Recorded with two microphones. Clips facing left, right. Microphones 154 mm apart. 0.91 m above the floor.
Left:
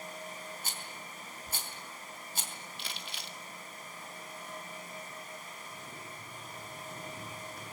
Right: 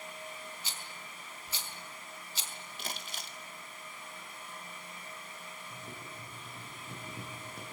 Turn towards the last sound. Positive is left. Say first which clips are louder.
# right 1 dB
turn(degrees=-25)  # may be behind; listen again after turning